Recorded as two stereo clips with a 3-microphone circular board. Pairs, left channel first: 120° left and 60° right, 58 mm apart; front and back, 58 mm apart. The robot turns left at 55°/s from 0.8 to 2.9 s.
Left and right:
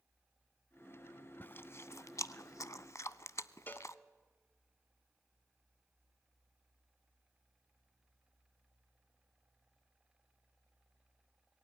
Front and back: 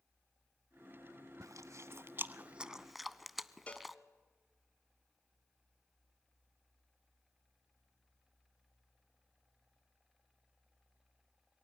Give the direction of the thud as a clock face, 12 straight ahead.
I don't hear a thud.